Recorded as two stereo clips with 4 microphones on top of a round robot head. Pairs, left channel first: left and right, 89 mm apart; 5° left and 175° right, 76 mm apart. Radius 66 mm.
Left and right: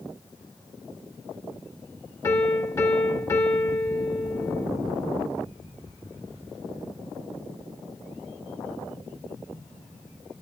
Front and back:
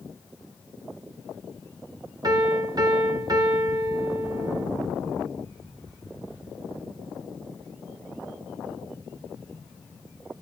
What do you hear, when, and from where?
2.2 s a piano: 155° left, 3 m